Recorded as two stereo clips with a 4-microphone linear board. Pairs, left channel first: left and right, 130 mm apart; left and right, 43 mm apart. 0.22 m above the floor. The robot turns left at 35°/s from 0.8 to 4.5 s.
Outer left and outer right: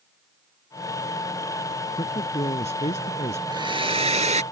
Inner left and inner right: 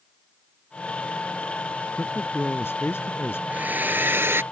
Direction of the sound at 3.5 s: 35° right.